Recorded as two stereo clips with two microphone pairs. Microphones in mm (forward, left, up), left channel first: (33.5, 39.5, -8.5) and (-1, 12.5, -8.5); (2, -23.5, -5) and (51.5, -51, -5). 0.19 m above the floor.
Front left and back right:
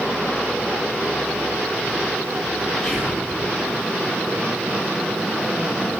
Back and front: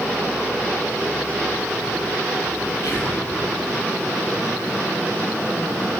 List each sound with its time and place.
2.8 s whispering: 115° left, 5.5 m